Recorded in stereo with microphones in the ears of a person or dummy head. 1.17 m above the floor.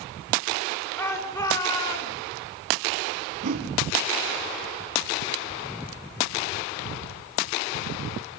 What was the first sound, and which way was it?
A shout, 15° left (ahead or behind).